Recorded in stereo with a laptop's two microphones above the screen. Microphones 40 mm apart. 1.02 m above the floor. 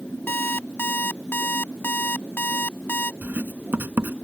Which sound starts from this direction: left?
An alarm clock, at 0.3 s.